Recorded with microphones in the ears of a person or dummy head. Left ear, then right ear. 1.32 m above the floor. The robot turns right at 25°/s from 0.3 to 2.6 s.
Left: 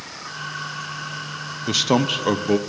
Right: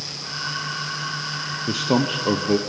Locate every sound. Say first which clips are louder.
1.7 s a man speaking: left 3 dB; 35° left (ahead or behind), 0.6 m; by 2.6 s 20° left (ahead or behind), 0.6 m